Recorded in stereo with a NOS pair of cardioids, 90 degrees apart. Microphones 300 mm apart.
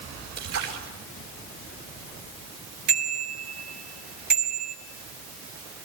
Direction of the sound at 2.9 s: 65° right.